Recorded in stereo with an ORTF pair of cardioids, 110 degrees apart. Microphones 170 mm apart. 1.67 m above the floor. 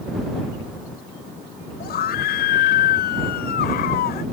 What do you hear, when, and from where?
1.8 s a scream: 65° left